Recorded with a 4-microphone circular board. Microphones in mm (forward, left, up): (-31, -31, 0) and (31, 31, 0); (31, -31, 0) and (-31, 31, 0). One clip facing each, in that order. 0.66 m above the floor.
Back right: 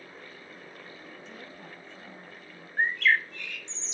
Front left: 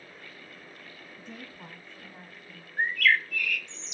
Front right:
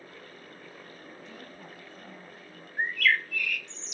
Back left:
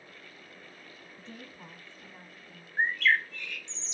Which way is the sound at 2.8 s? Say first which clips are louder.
Even, back left 1 dB; straight behind.